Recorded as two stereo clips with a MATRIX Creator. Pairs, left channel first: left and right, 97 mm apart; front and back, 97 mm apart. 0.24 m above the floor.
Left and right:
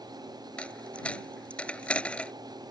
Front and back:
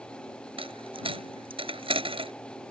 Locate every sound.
0.6 s a dropped coin: 170° left